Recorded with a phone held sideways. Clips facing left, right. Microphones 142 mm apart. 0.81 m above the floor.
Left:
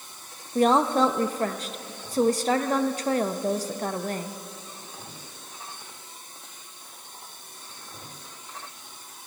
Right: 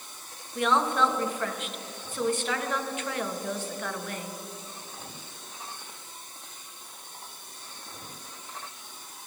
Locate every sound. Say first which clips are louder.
0.6 s a woman speaking: left 5 dB; 35° left (ahead or behind), 0.6 m